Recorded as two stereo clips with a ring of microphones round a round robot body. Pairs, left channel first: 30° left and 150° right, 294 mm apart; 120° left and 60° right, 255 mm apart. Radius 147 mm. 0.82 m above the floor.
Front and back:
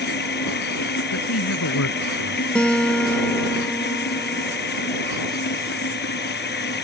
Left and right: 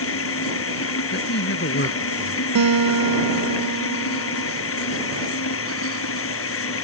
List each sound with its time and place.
0.0 s running water: 85° left
1.1 s a man speaking: 75° left
2.5 s a guitar: 55° right